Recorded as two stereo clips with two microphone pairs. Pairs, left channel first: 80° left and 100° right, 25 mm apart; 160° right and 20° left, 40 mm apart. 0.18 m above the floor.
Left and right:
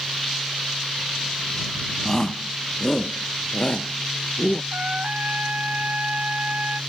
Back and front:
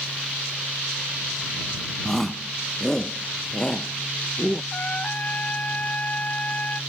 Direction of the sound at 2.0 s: 115° left.